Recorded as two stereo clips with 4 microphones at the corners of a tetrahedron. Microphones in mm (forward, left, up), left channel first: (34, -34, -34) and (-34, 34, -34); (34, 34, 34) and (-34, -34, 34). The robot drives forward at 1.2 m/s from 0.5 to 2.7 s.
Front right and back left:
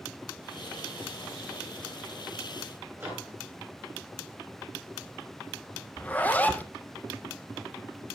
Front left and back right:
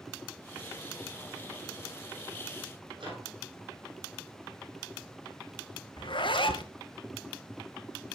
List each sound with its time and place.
3.0 s a microwave: 160° right, 5 m
6.0 s a zipper: 25° left, 0.9 m